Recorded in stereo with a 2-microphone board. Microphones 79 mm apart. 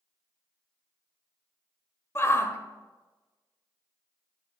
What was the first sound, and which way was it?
A shout, 30° left (ahead or behind).